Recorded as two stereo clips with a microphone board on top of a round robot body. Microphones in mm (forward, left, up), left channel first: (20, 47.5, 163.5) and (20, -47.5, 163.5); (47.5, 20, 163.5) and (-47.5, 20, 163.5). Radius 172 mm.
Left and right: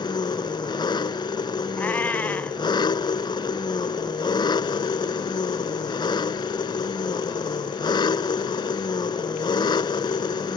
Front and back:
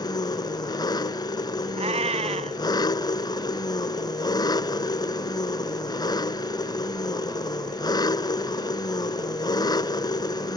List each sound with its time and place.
0.0 s an engine running: 50° left
1.8 s a cat meowing: 165° left